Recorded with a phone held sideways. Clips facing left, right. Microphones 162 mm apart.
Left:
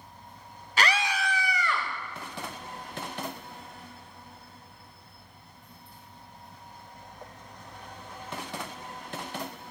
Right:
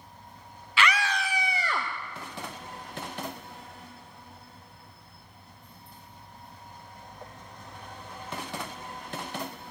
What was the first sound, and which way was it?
A scream, 40° left (ahead or behind).